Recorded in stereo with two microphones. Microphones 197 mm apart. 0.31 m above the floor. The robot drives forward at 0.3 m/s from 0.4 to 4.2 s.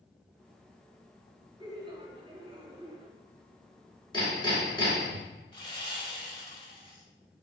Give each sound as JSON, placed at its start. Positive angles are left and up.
{"t": 1.6, "sound": "laughter", "side_deg": -25, "distance_m": 1.1}
{"t": 4.1, "sound": "hammering", "side_deg": 25, "distance_m": 2.0}
{"t": 5.5, "sound": "sawing", "side_deg": 25, "distance_m": 1.1}